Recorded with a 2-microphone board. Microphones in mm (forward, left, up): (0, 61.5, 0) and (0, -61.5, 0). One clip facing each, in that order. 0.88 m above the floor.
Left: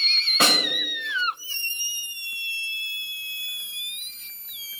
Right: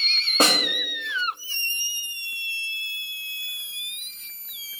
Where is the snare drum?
40° right (ahead or behind), 1.7 m.